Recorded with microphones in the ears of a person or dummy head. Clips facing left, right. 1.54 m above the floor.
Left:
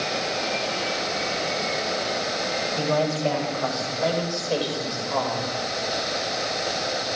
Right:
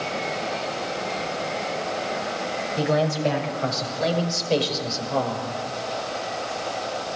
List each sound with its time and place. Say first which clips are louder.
2.8 s a man speaking: right 2 dB; 20° right (ahead or behind), 7 m; by 5.5 s 35° right (ahead or behind), 5.5 m